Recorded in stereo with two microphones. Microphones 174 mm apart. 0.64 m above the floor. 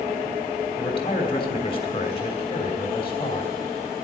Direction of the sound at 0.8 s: 35° left (ahead or behind).